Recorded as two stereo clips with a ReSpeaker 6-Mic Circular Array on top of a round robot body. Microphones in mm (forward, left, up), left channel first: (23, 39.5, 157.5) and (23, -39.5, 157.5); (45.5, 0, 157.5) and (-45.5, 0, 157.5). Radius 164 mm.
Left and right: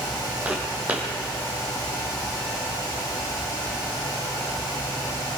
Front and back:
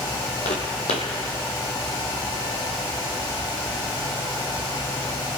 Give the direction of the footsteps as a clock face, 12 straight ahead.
1 o'clock.